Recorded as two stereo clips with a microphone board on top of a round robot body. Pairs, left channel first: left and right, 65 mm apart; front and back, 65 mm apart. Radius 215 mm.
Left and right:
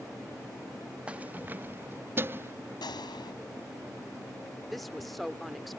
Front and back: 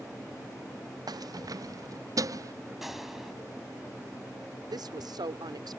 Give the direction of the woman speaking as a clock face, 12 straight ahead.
6 o'clock.